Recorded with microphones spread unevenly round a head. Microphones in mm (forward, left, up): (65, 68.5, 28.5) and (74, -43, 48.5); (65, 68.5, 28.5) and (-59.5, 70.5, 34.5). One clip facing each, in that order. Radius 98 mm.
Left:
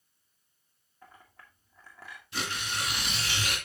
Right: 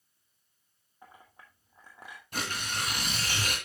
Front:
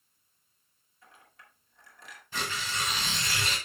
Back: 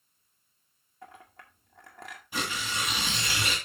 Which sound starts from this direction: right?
Tearing paper, at 2.3 s.